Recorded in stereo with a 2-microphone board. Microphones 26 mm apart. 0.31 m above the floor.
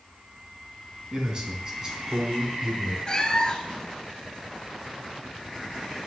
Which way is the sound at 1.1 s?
35° right (ahead or behind).